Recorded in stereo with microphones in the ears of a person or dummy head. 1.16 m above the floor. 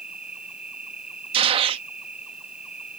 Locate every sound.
0.0 s an insect: 5° right (ahead or behind)
1.3 s a gunshot: 35° right (ahead or behind)